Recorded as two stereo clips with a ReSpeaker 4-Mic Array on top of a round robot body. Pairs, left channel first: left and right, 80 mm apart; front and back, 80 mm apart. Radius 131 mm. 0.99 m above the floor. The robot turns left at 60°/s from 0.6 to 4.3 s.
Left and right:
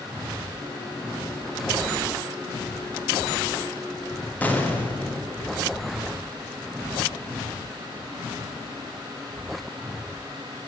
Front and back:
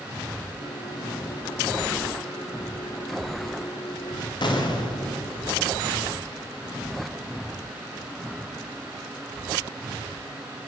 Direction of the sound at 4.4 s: 20° left.